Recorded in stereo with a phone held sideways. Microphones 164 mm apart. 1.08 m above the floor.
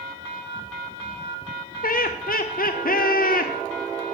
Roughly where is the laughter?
Left.